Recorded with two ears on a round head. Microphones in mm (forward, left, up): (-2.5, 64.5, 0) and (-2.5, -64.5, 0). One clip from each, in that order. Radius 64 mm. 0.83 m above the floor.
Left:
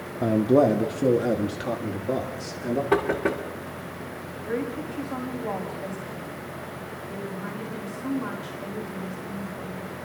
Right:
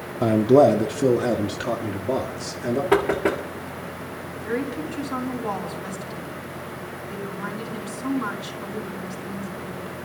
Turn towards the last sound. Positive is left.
turn(degrees=-45)  # may be behind; listen again after turning